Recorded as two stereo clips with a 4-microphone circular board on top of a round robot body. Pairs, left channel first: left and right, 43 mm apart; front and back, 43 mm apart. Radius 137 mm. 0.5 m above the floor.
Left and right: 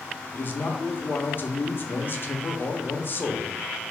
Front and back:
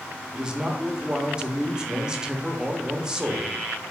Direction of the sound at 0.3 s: 110° left.